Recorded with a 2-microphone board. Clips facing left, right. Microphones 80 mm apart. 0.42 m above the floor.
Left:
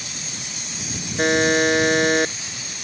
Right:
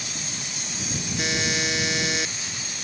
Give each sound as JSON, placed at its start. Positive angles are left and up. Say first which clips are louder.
{"t": 1.2, "sound": "a buzzer", "louder": "left 11 dB", "side_deg": 50}